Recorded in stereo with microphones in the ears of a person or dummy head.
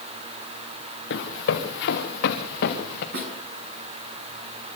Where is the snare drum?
70° right (ahead or behind), 6.5 m.